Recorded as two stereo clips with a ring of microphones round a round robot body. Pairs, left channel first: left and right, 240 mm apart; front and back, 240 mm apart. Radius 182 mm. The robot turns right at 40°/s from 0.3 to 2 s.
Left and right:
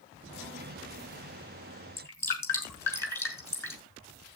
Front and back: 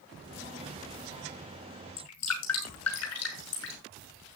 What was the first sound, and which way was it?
Dripping, 10° left.